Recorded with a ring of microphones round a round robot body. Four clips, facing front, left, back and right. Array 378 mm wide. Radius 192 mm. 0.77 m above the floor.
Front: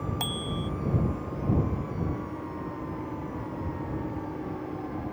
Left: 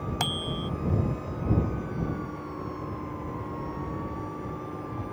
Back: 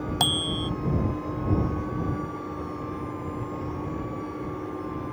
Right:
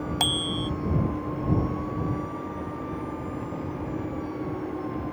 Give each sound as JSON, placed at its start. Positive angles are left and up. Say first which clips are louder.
{"t": 0.2, "sound": "a bicycle bell", "louder": "right 3 dB, back 4 dB", "azimuth_deg": 165}